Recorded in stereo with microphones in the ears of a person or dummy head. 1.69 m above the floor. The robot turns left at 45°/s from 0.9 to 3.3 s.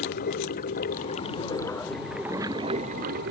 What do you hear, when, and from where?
0.0 s running water: 50° left; by 3.3 s 55° right